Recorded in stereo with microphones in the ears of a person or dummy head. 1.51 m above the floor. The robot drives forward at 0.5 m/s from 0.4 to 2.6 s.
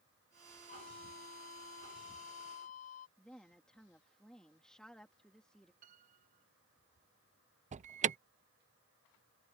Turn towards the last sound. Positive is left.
turn(degrees=-35)  # may be behind; listen again after turning